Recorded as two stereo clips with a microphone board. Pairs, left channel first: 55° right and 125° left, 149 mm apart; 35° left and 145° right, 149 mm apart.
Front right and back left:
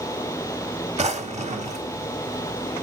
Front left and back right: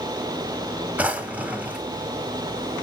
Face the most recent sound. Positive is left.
turn(degrees=140)